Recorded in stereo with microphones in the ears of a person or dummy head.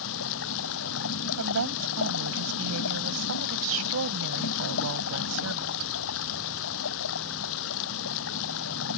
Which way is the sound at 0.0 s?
75° left (ahead or behind).